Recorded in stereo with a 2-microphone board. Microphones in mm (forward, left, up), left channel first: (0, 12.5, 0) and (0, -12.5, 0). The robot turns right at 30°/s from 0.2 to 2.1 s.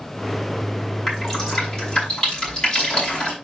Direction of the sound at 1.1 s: Centre (ahead or behind).